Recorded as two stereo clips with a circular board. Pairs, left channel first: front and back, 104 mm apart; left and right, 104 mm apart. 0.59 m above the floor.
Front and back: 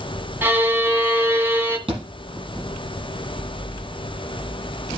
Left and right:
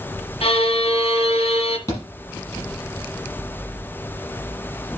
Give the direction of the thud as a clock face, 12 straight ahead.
7 o'clock.